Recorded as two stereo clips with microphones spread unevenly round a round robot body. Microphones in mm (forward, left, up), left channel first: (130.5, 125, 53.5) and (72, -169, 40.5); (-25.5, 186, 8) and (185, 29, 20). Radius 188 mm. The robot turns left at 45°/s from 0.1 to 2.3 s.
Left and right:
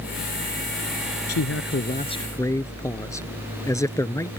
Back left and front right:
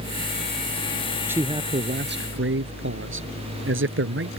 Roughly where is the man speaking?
Ahead left.